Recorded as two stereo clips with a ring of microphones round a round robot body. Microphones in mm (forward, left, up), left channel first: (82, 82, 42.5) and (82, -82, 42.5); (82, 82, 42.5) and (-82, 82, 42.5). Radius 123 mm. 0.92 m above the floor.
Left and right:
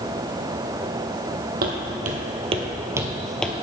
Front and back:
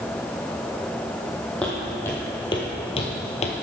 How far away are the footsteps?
About 1.6 m.